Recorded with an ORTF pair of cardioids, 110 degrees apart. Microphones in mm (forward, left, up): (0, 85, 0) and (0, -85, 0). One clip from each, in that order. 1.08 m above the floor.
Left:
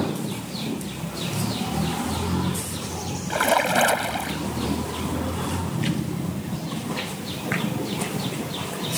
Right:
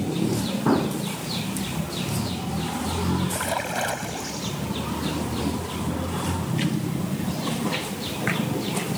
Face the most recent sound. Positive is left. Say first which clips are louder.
# left 12 dB
turn(degrees=45)